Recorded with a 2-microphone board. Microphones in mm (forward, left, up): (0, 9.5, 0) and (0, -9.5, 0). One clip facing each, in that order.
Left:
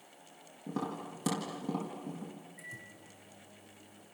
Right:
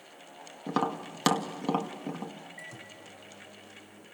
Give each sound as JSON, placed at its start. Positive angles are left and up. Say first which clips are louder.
{"t": 0.7, "sound": "tapping", "louder": "right 8 dB", "side_deg": -55, "distance_m": 2.0}
{"t": 2.6, "sound": "a microwave", "louder": "right 3 dB", "side_deg": -30, "distance_m": 3.0}